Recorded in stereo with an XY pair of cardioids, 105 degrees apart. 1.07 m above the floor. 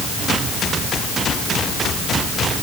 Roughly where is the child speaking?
I don't hear a child speaking.